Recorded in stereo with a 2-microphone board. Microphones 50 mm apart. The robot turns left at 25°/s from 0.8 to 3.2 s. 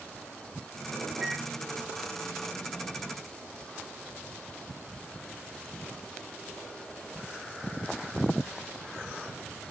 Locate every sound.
1.2 s a microwave: 15° right (ahead or behind), 0.5 m